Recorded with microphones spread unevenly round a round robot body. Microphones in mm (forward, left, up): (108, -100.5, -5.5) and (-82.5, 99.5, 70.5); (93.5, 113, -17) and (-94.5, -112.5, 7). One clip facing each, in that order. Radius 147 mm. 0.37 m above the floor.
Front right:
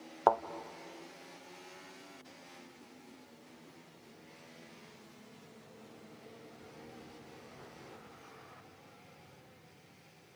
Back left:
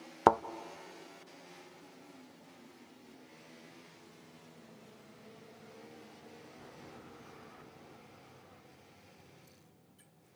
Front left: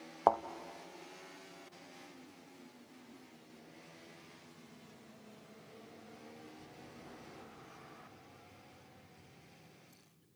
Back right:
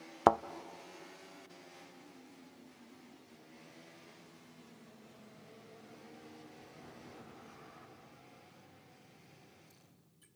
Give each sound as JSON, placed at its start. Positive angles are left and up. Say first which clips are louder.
{"t": 0.3, "sound": "a thud", "louder": "back left 3 dB, back right 3 dB", "azimuth_deg": -175, "distance_m": 0.5}